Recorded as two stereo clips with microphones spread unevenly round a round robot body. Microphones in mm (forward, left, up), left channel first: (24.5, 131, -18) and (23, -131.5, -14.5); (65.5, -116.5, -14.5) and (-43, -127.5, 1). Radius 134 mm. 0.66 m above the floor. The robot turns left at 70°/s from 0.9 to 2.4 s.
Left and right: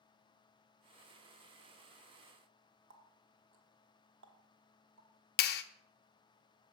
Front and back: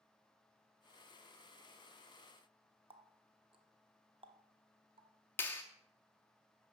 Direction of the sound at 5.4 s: 60° left.